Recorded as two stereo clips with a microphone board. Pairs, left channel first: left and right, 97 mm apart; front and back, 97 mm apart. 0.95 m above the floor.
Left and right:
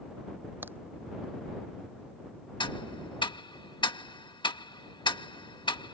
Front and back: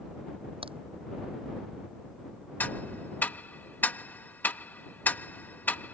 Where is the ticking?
70° left.